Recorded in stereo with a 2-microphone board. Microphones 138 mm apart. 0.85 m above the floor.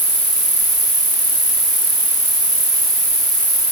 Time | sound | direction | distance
0.0 | an insect | 65° right (ahead or behind) | 1.9 m